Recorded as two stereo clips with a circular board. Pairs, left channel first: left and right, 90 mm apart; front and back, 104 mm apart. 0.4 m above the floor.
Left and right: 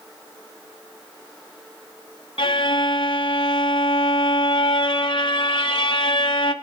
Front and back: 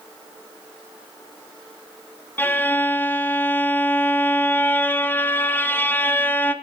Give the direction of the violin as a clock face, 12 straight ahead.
10 o'clock.